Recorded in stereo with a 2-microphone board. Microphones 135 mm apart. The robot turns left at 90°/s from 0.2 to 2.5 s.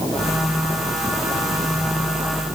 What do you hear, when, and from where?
Only background noise.